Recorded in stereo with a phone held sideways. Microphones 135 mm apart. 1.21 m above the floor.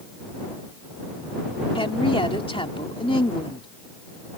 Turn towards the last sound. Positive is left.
turn(degrees=40)  # may be behind; listen again after turning